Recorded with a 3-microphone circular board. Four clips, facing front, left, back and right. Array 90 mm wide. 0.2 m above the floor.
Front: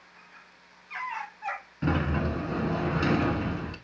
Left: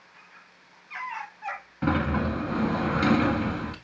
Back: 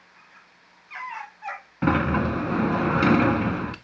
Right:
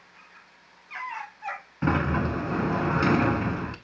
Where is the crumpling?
No crumpling in this recording.